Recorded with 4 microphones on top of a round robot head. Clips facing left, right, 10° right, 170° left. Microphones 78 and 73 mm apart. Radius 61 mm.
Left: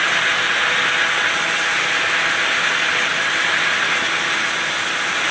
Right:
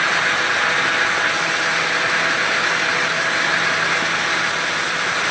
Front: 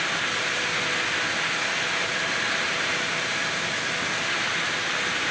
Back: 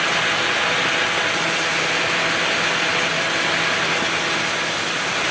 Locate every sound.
Only background noise.